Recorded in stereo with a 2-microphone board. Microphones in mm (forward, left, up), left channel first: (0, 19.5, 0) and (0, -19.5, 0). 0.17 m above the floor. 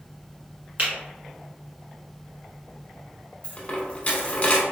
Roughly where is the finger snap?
Right.